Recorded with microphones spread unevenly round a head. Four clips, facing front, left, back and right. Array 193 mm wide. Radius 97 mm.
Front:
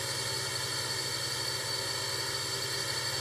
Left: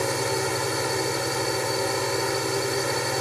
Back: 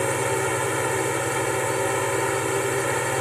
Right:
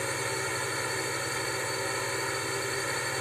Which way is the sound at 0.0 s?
155° left.